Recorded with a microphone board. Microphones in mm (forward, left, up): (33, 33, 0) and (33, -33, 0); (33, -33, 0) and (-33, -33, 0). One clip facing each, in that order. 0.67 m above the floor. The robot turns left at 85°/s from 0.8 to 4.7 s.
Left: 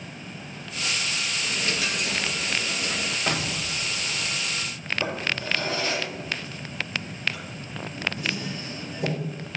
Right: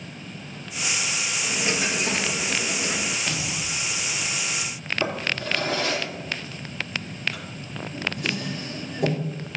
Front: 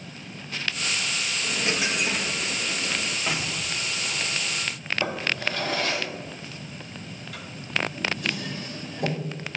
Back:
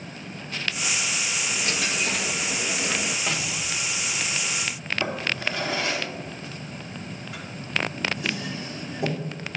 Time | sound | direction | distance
1.4 | a dropped coin | 15° right | 0.7 m
3.3 | an explosion | 85° left | 0.8 m
5.0 | a drawer | 120° right | 4 m